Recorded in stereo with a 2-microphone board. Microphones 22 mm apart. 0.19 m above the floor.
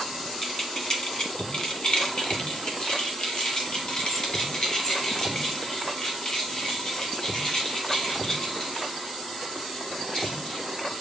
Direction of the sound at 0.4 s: 25° left (ahead or behind).